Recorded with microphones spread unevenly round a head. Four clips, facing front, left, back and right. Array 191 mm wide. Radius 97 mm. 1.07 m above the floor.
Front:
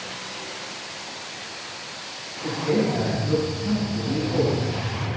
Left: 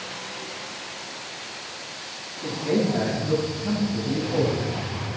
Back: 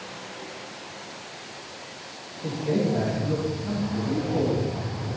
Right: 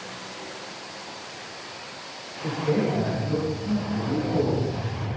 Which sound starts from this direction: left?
A man speaking, at 2.4 s.